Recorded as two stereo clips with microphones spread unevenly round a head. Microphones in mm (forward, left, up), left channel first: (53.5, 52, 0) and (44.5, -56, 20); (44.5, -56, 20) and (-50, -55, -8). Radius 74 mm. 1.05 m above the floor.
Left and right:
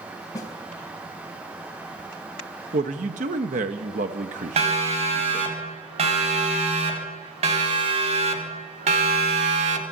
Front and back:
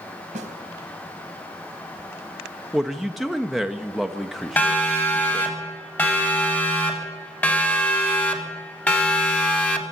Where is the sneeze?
No sneeze in this recording.